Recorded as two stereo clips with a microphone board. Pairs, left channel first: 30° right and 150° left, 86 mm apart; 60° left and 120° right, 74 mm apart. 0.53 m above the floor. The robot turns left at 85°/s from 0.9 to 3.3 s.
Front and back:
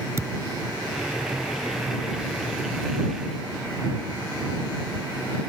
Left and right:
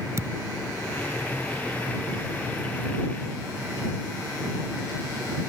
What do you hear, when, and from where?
0.2 s a thud: 160° right